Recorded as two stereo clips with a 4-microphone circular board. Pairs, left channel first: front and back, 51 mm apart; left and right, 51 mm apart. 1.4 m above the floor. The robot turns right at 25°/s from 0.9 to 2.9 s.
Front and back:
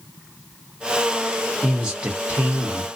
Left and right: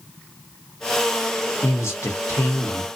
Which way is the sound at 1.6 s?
100° left.